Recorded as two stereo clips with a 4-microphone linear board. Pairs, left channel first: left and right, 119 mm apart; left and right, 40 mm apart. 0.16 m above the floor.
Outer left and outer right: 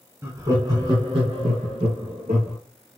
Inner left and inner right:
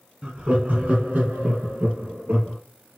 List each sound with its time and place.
0.2 s laughter: 20° right (ahead or behind), 1.2 m; by 2.6 s 60° right (ahead or behind), 2.5 m